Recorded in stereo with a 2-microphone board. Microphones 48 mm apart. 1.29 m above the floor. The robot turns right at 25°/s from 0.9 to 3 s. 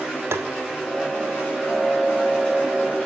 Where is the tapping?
65° right (ahead or behind), 0.6 m.